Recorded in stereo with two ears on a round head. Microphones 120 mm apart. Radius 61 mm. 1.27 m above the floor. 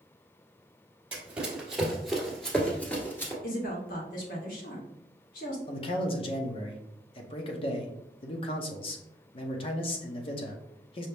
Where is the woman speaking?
75° left (ahead or behind), 1.6 m.